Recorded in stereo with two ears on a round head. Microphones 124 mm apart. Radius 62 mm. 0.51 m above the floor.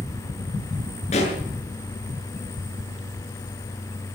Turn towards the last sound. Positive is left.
turn(degrees=50)  # may be behind; listen again after turning